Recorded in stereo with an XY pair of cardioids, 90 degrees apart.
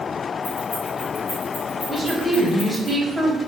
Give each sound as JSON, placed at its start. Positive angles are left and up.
{"t": 0.4, "sound": "keys jangling", "azimuth_deg": 50, "distance_m": 1.7}
{"t": 1.9, "sound": "a woman speaking", "azimuth_deg": -10, "distance_m": 1.1}